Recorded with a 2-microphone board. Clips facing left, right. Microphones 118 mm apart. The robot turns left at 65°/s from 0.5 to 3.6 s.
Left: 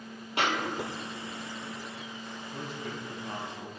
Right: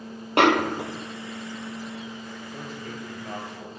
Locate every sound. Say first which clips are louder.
0.4 s a snare drum: right 10 dB; 105° right, 0.6 m; by 1.1 s 145° right, 0.6 m
2.5 s a man speaking: even; 35° right, 6.5 m; by 3.7 s 105° right, 6.5 m